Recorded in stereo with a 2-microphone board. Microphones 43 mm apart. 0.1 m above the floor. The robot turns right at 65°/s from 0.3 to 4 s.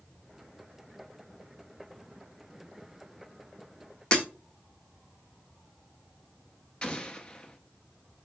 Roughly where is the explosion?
Left.